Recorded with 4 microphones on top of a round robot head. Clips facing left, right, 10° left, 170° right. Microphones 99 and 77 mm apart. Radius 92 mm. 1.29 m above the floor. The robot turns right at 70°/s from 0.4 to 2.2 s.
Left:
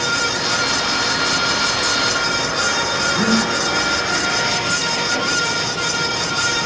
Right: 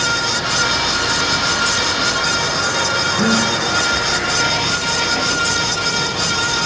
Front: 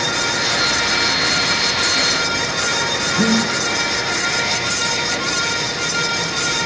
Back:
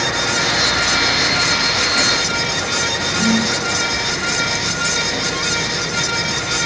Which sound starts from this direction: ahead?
Breathing, at 3.2 s.